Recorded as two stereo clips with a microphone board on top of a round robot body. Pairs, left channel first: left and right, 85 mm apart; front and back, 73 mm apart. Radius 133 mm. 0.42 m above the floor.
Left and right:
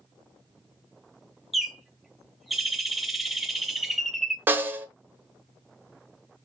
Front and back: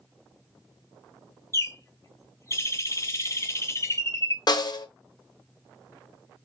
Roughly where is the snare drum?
Ahead right.